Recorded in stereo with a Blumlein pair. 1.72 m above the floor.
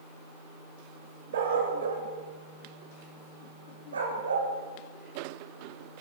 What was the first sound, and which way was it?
A dog barking, 60° right.